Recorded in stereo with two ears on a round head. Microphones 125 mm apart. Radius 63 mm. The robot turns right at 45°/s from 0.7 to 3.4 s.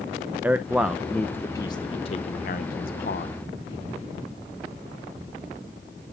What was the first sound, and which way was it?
A man speaking, 10° right (ahead or behind).